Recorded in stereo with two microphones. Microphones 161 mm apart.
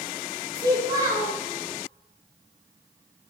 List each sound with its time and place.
0.6 s a child speaking: 25° right (ahead or behind), 0.7 m